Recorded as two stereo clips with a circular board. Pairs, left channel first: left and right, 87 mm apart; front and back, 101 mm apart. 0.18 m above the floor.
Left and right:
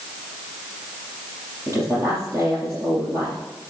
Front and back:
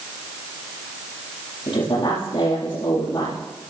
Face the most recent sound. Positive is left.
turn(degrees=-35)